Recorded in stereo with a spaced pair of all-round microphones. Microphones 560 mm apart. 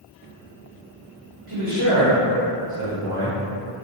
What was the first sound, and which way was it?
A man speaking, 60° right (ahead or behind).